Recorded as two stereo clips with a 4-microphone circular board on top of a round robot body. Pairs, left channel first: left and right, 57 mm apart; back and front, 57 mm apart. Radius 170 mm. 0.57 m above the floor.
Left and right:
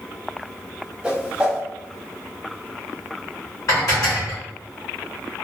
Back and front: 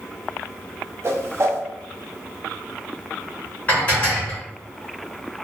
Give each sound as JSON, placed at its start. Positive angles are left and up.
{"t": 1.0, "sound": "a whoosh", "azimuth_deg": -20, "distance_m": 0.9}
{"t": 3.7, "sound": "dishes clattering", "azimuth_deg": 115, "distance_m": 1.7}